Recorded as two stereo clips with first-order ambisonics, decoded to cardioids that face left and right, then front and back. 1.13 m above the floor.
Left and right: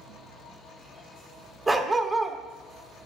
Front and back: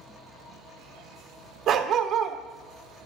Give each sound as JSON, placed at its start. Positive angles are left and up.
{"t": 1.7, "sound": "a dog barking", "azimuth_deg": -170, "distance_m": 0.6}